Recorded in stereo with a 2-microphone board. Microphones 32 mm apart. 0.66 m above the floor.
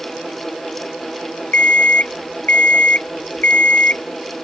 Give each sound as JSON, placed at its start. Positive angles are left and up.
{"t": 1.5, "sound": "an alarm clock", "side_deg": 60}